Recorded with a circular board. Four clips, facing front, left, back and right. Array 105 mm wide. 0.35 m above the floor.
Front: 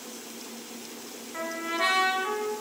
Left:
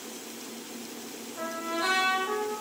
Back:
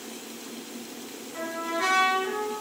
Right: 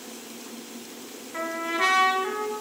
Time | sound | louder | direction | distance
1.3 | a trumpet | right 4 dB, back 1 dB | 75° right | 3 m